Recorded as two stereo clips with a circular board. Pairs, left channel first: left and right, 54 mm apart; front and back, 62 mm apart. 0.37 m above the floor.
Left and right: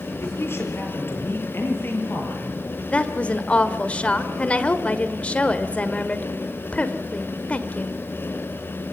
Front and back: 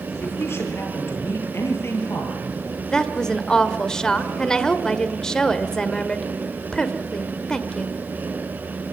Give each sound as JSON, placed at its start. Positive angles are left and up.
{"t": 0.2, "sound": "a woman speaking", "azimuth_deg": 50, "distance_m": 6.0}
{"t": 2.9, "sound": "a woman speaking", "azimuth_deg": 65, "distance_m": 1.4}